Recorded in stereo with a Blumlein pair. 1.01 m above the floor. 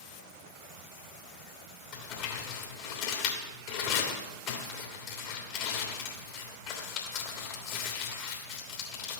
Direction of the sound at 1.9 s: 40° left.